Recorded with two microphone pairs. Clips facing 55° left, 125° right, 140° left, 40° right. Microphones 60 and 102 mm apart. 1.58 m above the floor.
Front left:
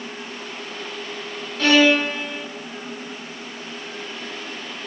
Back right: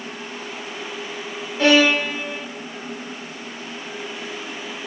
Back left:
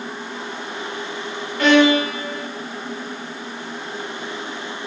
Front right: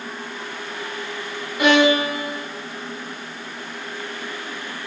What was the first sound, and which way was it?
A violin, 95° right.